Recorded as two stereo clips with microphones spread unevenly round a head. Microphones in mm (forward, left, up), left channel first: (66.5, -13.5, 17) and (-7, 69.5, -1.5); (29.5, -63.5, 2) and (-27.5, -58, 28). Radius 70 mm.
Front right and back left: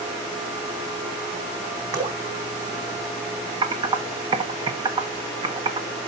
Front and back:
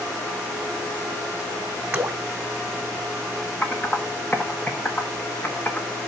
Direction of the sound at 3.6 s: 85° left.